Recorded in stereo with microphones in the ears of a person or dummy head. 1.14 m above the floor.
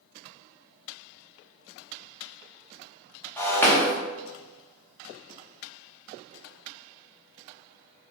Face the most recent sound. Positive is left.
turn(degrees=15)  # may be behind; listen again after turning